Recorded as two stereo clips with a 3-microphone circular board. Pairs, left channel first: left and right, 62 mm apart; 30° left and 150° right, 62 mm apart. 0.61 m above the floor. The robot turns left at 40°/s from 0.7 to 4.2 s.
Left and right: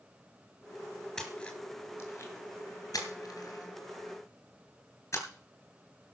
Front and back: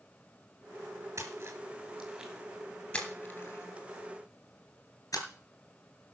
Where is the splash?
175° left, 3 m; by 5.2 s 55° left, 3 m.